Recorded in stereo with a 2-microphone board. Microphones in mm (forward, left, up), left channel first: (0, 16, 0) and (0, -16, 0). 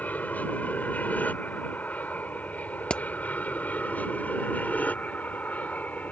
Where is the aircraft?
60° left (ahead or behind).